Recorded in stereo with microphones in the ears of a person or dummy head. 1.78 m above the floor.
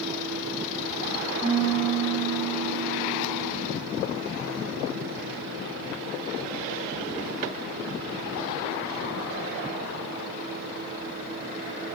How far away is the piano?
About 3 m.